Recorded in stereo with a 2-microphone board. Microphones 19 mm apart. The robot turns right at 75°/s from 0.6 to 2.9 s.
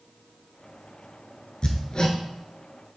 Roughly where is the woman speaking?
I don't hear a woman speaking.